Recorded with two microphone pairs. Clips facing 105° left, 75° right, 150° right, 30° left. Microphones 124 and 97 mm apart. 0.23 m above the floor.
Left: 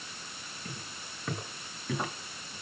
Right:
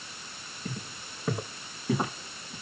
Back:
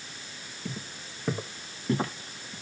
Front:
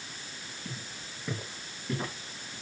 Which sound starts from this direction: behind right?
Footsteps, at 0.7 s.